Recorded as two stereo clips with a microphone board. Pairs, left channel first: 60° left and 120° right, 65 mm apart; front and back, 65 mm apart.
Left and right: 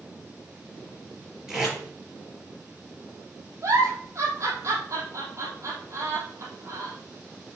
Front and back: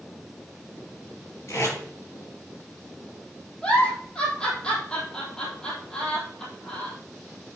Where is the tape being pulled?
40° right, 4.5 m.